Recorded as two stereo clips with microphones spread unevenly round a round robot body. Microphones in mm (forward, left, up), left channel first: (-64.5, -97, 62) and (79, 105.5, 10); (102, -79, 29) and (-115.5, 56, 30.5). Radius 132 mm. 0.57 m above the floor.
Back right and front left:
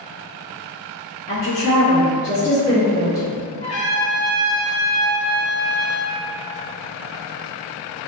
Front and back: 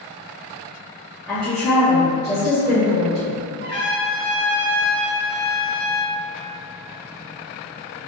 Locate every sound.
1.3 s a woman speaking: 120° right, 1.3 m; by 3.4 s 40° right, 1.8 m
3.6 s a trumpet: 170° right, 1.1 m